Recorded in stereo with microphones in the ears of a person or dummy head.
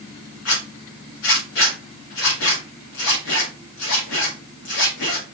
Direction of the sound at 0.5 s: 65° left (ahead or behind).